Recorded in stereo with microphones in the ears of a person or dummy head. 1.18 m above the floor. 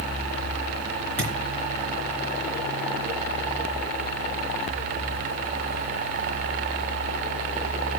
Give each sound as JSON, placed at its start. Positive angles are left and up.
{"t": 1.2, "sound": "a thud", "side_deg": 5, "distance_m": 3.5}